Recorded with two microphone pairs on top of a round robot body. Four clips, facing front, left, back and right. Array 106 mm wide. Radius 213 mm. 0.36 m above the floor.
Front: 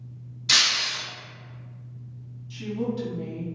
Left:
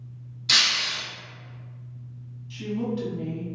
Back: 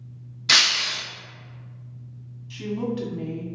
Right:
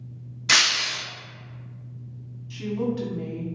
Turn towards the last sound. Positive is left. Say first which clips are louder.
# right 2 dB, back 1 dB
turn(degrees=-155)